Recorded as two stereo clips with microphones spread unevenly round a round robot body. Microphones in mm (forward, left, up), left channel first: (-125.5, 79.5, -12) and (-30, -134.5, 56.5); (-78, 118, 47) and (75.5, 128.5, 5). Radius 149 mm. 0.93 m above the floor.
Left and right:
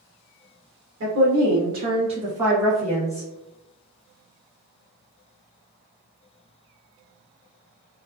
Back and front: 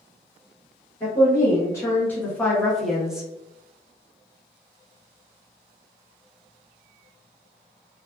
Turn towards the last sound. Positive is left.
turn(degrees=70)